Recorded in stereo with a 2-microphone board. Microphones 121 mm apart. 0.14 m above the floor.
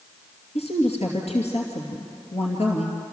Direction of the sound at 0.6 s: 65° left (ahead or behind).